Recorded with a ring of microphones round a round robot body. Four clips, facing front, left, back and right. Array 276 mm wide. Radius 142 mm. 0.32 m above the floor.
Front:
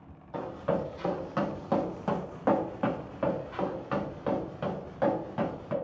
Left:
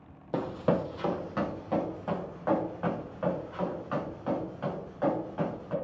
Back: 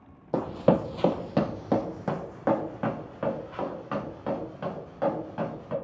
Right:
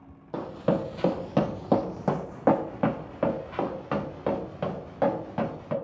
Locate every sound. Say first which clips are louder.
0.3 s running footsteps: right 1 dB, back 7 dB; 160° left, 0.6 m; by 5.7 s 85° right, 3 m